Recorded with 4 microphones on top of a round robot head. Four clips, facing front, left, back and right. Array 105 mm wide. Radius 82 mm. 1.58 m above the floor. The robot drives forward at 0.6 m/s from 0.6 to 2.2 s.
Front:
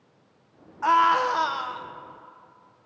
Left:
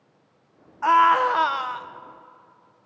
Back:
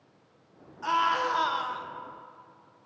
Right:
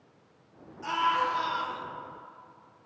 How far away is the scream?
About 1.2 m.